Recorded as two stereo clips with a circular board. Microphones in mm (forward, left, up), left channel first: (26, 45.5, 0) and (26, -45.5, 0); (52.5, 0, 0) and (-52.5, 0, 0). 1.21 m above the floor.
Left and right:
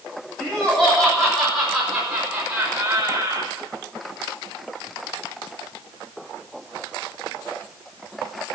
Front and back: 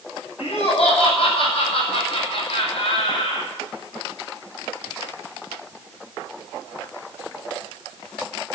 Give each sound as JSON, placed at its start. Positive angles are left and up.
{"t": 0.4, "sound": "laughter", "azimuth_deg": 10, "distance_m": 7.5}